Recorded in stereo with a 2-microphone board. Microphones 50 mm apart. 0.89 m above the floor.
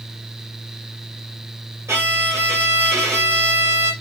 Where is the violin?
70° right (ahead or behind), 1.3 m.